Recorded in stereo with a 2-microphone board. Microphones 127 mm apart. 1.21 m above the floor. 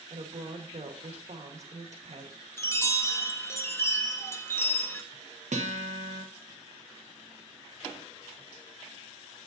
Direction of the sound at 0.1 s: 65° right (ahead or behind).